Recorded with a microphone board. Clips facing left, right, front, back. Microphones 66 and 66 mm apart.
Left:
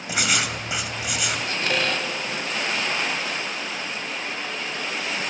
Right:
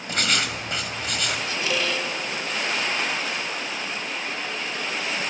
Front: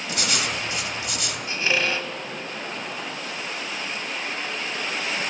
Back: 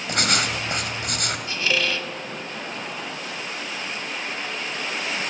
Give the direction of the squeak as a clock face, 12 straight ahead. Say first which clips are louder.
Left 2 dB, front 2 dB; 10 o'clock.